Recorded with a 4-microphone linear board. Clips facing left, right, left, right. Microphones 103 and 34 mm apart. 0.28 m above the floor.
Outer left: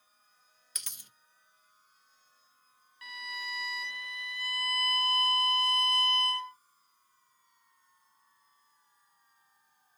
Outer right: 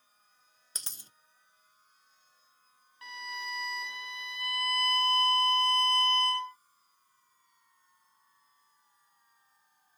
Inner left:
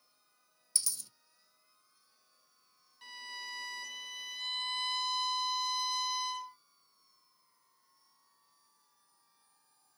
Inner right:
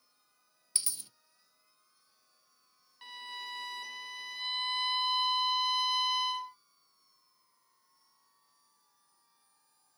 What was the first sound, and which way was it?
A dropped coin, 30° right (ahead or behind).